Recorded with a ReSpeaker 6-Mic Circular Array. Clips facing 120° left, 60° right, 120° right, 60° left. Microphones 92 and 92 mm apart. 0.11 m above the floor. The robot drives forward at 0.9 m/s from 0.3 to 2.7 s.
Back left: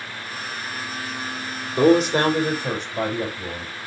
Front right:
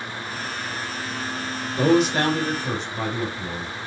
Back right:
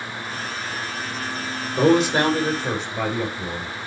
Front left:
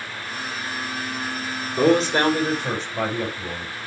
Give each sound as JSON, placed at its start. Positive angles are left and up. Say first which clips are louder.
{"t": 1.8, "sound": "a man speaking", "louder": "back left 3 dB, back right 1 dB", "azimuth_deg": 160, "distance_m": 5.5}